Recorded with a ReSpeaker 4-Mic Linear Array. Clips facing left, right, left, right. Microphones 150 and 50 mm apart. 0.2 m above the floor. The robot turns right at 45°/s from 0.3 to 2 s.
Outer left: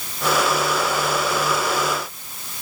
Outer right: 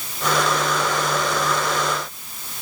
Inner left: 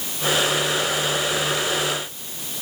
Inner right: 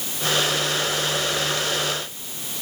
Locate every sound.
Only background noise.